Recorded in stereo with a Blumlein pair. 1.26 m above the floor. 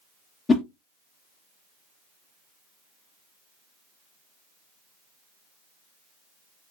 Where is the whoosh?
15° left, 0.6 m.